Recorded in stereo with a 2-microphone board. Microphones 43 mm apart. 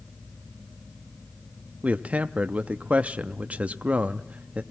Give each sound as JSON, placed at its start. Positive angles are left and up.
{"t": 1.8, "sound": "a man speaking", "side_deg": -35, "distance_m": 0.6}